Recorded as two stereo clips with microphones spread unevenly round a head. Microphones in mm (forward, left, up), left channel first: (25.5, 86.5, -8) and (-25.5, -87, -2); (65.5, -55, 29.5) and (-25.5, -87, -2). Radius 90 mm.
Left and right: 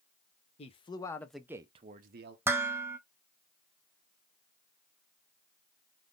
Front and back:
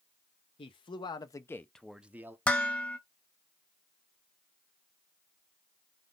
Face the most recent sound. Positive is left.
turn(degrees=-35)